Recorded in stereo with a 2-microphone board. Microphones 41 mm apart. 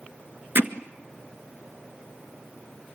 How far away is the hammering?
About 1.5 m.